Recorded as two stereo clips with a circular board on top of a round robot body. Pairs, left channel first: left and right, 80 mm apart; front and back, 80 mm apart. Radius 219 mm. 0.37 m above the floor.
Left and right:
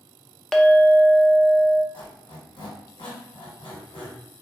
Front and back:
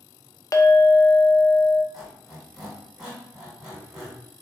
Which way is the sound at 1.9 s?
95° left.